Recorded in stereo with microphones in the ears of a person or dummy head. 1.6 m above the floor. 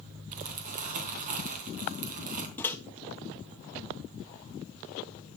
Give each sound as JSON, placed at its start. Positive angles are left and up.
{"t": 0.3, "sound": "crumpling", "side_deg": -45, "distance_m": 3.5}
{"t": 2.6, "sound": "a microwave", "side_deg": 10, "distance_m": 1.2}